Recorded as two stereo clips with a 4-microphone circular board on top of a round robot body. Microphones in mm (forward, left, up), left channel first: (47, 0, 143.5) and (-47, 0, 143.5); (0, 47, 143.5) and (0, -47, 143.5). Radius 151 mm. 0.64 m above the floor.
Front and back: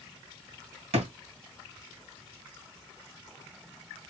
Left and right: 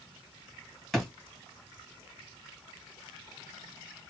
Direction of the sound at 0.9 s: Straight behind.